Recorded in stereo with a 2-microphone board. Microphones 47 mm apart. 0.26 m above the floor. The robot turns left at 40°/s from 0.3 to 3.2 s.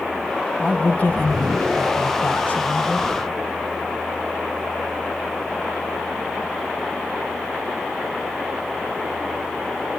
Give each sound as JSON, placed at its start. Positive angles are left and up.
{"t": 0.6, "sound": "a man speaking", "azimuth_deg": 150, "distance_m": 1.6}